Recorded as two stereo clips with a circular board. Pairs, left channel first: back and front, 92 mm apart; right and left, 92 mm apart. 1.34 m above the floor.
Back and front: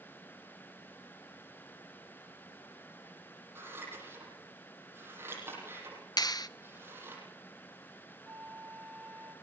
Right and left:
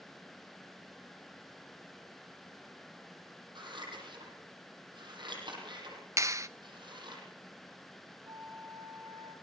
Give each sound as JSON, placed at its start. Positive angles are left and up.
{"t": 3.5, "sound": "scissors", "azimuth_deg": 65, "distance_m": 8.0}
{"t": 6.2, "sound": "a clap", "azimuth_deg": 145, "distance_m": 0.6}
{"t": 8.2, "sound": "a flute", "azimuth_deg": 70, "distance_m": 3.0}